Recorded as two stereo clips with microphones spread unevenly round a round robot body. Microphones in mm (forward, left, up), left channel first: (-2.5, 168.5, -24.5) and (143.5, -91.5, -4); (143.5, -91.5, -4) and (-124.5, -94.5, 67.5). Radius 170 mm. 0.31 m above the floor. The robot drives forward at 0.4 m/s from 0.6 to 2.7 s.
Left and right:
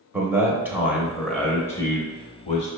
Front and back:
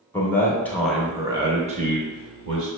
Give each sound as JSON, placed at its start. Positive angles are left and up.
{"t": 0.1, "sound": "a man speaking", "azimuth_deg": 20, "distance_m": 0.9}